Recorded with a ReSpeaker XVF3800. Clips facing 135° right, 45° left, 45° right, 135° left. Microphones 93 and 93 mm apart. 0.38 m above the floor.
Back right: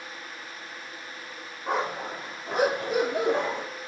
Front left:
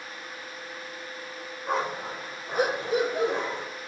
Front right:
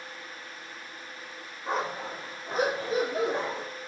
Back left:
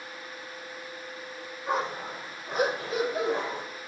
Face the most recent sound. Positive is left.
turn(degrees=-105)